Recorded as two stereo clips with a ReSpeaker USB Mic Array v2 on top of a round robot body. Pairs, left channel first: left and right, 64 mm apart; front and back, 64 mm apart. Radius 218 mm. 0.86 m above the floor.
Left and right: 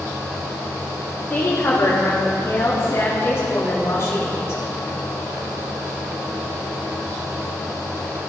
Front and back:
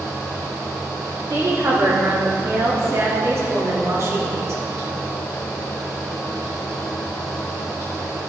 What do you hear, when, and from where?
1.3 s a woman speaking: 140° left, 3 m